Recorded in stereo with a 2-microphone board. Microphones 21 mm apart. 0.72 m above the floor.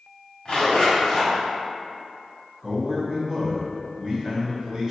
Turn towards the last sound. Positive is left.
turn(degrees=-20)  # may be behind; listen again after turning